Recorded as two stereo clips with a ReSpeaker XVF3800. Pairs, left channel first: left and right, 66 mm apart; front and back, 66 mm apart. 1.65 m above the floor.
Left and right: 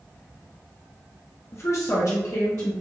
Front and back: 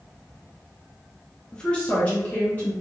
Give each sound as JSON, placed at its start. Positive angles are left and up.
{"t": 1.5, "sound": "a woman speaking", "azimuth_deg": 70, "distance_m": 0.5}